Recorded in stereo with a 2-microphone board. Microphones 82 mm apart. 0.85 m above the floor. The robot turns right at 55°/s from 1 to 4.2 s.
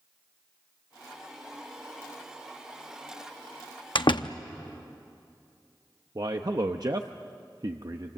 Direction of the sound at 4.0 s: 80° left.